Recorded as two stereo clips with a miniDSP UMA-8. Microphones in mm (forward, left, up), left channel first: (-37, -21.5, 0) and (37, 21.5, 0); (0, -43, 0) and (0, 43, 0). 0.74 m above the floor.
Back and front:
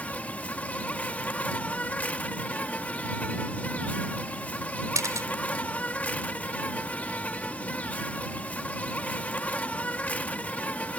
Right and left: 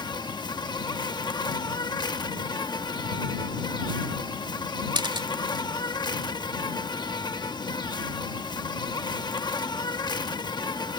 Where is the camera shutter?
75° left.